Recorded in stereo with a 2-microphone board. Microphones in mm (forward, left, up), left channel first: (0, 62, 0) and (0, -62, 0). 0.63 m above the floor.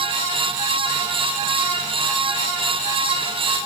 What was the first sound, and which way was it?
Only background noise.